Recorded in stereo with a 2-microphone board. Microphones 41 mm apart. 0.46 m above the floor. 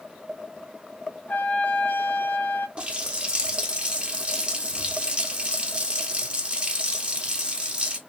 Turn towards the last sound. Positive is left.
turn(degrees=-25)  # may be behind; listen again after turning